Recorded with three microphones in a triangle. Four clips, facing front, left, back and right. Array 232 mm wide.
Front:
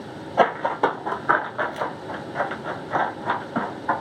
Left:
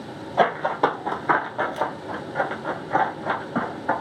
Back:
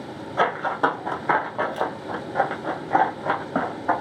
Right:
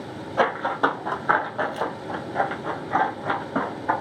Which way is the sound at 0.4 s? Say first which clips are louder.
Left 2 dB, front 2 dB; 25° left.